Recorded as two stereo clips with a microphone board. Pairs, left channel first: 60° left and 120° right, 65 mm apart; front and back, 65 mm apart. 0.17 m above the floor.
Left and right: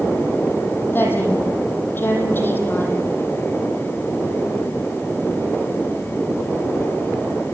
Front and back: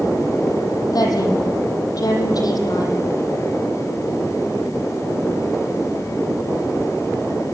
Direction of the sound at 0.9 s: 5° left.